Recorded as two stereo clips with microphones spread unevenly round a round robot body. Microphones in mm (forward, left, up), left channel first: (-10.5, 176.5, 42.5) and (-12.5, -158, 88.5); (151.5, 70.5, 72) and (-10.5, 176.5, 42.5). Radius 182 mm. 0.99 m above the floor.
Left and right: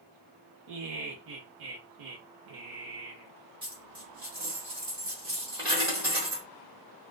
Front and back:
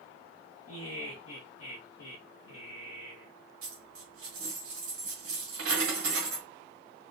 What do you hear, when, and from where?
0.7 s laughter: 50° right, 0.6 m
3.6 s a dropped coin: 160° right, 1.3 m